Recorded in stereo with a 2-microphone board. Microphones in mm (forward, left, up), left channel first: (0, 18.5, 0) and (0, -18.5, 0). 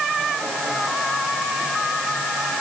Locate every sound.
Only background noise.